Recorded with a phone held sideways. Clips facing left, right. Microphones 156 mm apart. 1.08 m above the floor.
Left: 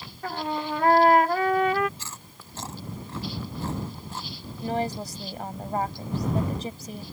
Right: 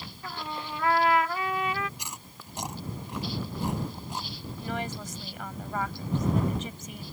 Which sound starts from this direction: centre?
Chewing, at 2.0 s.